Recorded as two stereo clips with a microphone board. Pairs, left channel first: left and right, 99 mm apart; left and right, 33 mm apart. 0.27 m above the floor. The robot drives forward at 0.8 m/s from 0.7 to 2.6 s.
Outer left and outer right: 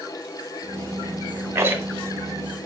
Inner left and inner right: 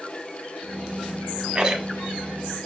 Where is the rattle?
25° right (ahead or behind), 0.8 m; by 2.7 s 15° right (ahead or behind), 1.5 m.